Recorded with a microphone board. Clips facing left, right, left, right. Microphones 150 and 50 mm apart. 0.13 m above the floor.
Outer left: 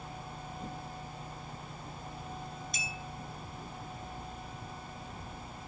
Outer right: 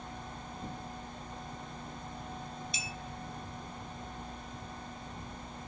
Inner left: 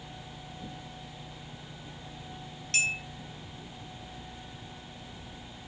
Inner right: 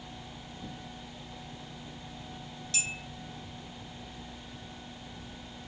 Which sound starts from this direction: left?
A clink, at 2.7 s.